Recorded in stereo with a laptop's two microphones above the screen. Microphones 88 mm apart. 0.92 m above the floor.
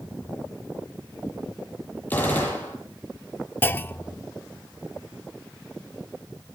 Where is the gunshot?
20° left (ahead or behind), 9.5 m.